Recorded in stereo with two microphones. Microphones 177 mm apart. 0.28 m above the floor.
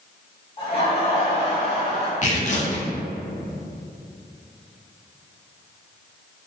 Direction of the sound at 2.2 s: 45° left (ahead or behind).